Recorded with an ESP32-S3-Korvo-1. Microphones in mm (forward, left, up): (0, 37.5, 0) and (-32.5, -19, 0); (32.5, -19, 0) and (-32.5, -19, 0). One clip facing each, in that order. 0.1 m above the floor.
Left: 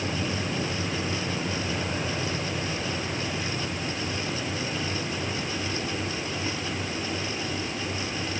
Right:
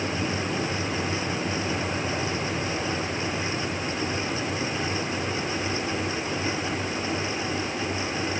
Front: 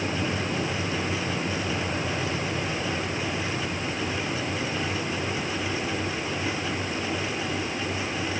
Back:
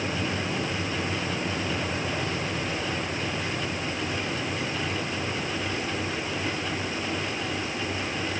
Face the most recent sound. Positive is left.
No sound to turn to.